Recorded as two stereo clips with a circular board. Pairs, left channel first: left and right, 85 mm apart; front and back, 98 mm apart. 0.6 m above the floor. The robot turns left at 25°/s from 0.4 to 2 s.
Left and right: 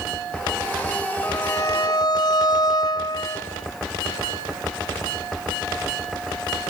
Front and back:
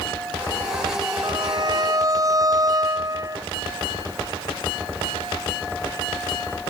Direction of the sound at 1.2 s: 145° left.